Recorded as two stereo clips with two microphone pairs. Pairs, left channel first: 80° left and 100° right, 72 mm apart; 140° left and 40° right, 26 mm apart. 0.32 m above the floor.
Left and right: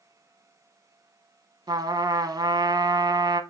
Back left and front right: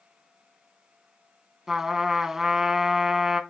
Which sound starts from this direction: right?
A trumpet, at 1.7 s.